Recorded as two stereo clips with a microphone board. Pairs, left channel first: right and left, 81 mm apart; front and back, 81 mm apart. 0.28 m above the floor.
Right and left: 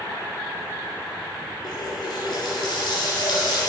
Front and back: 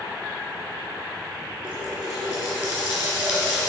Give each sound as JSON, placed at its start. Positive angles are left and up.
{"t": 1.6, "sound": "a running tap", "azimuth_deg": -110, "distance_m": 2.0}